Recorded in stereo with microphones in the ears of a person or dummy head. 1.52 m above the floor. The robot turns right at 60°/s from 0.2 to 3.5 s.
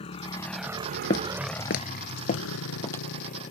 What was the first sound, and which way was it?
A motorcycle, 35° left (ahead or behind).